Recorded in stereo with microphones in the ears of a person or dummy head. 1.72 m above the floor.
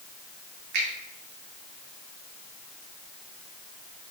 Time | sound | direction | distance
0.7 | a finger snap | 55° right (ahead or behind) | 3 m